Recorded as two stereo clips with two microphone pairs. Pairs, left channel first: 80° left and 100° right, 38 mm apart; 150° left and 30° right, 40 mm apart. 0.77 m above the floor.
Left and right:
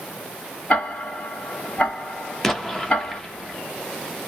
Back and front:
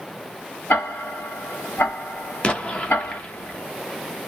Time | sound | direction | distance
0.7 | ticking | 140° left | 2.5 m
2.4 | an explosion | 155° left | 0.7 m